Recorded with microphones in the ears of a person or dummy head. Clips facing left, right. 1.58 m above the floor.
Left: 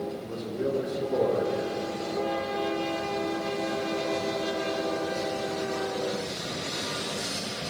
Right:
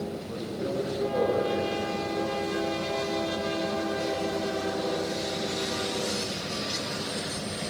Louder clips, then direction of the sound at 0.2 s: Left 2 dB; 80° left.